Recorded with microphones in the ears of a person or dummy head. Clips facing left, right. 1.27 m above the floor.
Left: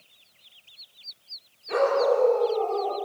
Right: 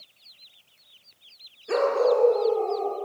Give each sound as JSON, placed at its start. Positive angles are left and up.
{"t": 1.7, "sound": "a dog barking", "side_deg": -75, "distance_m": 7.0}